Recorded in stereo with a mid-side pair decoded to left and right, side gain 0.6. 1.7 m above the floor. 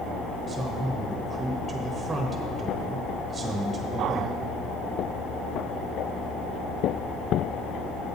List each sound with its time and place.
0.5 s a man speaking: 20° right, 1.1 m